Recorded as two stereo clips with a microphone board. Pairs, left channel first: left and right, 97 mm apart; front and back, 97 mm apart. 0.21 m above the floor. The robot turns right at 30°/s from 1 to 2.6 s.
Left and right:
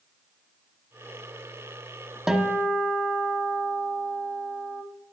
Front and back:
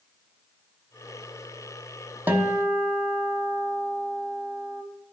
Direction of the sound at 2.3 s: 165° right.